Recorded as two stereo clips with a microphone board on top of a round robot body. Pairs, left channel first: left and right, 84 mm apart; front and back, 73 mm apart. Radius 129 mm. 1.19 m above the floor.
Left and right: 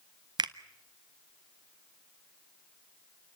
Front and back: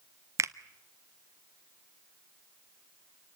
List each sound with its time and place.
0.4 s a finger snap: 130° right, 0.6 m